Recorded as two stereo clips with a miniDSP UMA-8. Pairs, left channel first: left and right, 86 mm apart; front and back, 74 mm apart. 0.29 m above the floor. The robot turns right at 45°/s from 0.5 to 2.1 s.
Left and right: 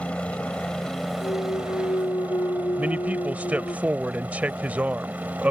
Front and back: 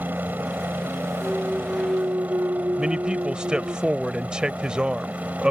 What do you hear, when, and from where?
0.0 s a helicopter: 150° left; by 5.5 s 135° right
1.2 s a clunk: 85° left; by 3.8 s 125° left
2.8 s a man speaking: 120° right